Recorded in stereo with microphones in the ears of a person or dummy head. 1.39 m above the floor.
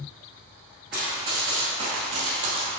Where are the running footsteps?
5° right (ahead or behind), 1.4 m; by 2.7 s 45° right (ahead or behind), 2.5 m.